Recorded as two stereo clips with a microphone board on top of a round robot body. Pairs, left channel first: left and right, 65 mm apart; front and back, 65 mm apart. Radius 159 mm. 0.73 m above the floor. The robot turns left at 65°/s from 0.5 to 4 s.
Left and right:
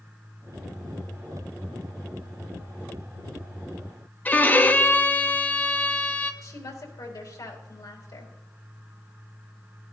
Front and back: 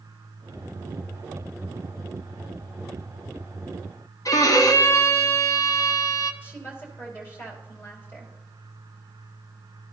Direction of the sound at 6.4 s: 55° left.